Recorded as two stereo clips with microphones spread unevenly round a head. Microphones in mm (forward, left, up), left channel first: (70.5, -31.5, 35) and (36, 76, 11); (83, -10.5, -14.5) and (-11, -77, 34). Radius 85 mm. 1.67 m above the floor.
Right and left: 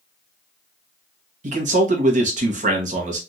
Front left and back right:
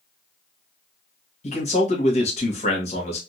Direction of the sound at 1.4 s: 95° left.